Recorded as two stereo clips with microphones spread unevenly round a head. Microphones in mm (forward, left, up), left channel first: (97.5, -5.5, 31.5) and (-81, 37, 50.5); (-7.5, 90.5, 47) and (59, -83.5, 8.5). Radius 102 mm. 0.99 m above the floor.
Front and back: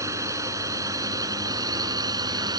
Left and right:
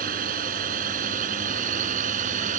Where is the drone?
120° right; by 2.6 s 125° right.